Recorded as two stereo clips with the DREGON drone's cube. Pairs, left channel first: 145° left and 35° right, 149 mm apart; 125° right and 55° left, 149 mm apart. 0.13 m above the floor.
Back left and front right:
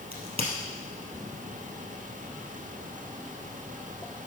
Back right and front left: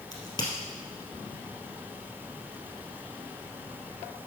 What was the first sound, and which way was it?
A crack, 75° right.